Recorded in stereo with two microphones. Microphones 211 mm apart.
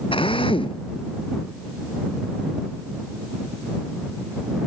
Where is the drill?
25° left (ahead or behind).